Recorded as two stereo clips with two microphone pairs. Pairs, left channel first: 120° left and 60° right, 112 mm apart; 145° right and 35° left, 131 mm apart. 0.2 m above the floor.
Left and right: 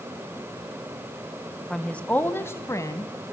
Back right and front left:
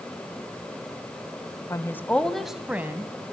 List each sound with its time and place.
1.7 s a woman speaking: 160° right, 1.3 m; by 3.1 s 90° left, 1.5 m